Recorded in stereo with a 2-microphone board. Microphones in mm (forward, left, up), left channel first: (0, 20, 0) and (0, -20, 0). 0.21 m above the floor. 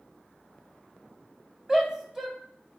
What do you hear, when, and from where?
1.7 s a shout: 15° right (ahead or behind), 1.0 m